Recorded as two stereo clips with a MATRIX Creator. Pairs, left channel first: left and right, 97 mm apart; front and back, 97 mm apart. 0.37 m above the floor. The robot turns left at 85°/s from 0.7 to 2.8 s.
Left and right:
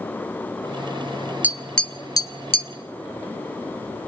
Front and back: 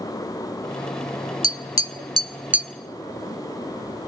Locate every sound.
1.4 s tapping: 160° right, 0.7 m; by 2.7 s 95° left, 0.7 m